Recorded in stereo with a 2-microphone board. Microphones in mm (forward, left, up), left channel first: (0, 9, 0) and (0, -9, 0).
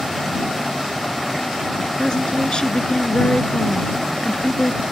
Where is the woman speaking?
45° left (ahead or behind).